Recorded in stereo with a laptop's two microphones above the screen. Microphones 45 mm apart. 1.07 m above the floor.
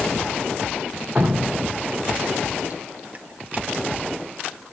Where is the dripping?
40° right (ahead or behind), 1.5 m.